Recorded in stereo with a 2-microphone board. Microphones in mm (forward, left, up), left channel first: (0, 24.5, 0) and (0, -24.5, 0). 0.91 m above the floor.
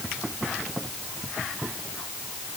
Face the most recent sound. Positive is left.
No sound to turn to.